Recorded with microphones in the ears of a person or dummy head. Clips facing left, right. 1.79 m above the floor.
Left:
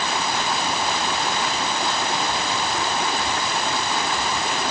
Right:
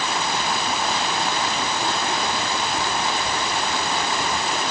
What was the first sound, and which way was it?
Only background noise.